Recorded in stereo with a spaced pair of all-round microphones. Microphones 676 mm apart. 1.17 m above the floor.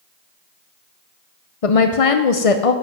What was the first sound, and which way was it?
A woman speaking, 55° left (ahead or behind).